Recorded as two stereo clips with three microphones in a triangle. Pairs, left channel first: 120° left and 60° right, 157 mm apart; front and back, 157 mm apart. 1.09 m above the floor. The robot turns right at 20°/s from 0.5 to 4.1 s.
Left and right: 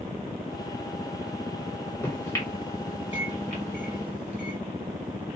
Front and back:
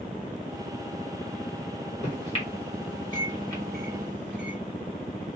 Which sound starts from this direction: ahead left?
A microwave, at 2.0 s.